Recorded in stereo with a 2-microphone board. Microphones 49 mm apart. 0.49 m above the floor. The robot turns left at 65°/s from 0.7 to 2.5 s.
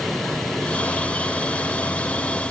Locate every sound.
Only background noise.